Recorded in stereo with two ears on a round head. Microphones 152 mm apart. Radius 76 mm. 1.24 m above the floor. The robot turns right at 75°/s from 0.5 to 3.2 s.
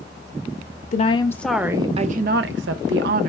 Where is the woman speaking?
135° left, 0.6 m; by 3.3 s 55° right, 0.6 m.